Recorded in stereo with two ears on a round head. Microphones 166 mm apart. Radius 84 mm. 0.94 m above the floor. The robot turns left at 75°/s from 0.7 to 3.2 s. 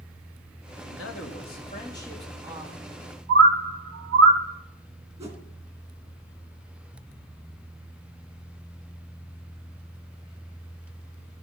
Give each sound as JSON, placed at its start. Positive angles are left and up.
{"t": 0.9, "sound": "a man speaking", "azimuth_deg": 100, "distance_m": 1.7}
{"t": 3.3, "sound": "a bird", "side_deg": -60, "distance_m": 0.9}
{"t": 5.2, "sound": "a whoosh", "side_deg": -35, "distance_m": 2.5}